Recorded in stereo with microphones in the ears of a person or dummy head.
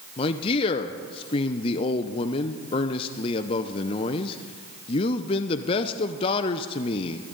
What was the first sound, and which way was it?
A man speaking, 30° left (ahead or behind).